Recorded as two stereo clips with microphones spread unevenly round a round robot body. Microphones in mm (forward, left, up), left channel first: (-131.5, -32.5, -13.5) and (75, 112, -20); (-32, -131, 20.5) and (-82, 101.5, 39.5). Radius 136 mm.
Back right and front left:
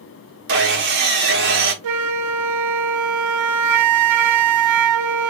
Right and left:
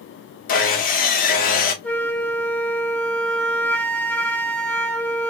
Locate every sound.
0.5 s sawing: 20° right, 1.3 m
1.8 s a flute: 5° left, 0.6 m